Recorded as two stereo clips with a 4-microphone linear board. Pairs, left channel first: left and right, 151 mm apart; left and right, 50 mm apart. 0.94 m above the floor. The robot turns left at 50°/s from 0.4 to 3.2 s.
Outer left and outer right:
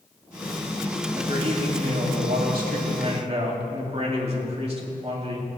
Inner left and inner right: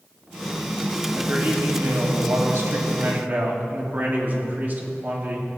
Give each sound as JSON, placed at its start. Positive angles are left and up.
{"t": 1.1, "sound": "a man speaking", "azimuth_deg": -35, "distance_m": 2.5}